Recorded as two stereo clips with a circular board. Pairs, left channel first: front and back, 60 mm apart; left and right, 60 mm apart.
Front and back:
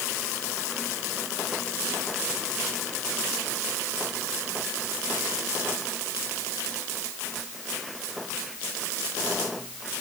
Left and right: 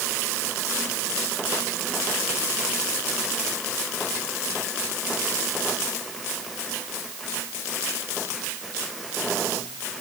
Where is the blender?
No blender in this recording.